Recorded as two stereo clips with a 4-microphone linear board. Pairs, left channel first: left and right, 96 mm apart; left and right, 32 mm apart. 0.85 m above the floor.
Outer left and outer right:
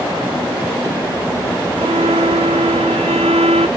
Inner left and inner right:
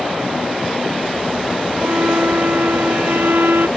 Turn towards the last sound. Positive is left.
turn(degrees=-85)